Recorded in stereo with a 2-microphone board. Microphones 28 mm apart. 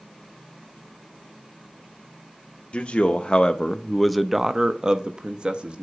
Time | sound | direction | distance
2.7 | a man speaking | 50° left (ahead or behind) | 0.8 m